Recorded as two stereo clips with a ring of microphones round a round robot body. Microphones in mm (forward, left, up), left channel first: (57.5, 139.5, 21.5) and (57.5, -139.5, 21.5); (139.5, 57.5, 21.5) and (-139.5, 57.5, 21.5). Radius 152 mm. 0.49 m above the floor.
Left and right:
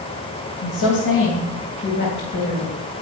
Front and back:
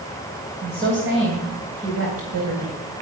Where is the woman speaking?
130° left, 3 m; by 2.8 s 155° left, 3 m.